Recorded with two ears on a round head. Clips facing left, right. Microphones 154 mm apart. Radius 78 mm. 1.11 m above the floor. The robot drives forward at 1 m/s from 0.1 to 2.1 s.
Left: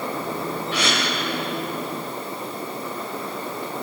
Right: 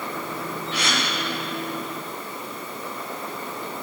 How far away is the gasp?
About 4 m.